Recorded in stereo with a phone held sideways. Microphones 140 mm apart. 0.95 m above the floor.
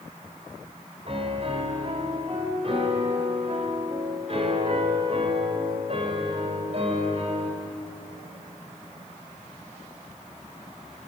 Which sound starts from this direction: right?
A piano, at 1.1 s.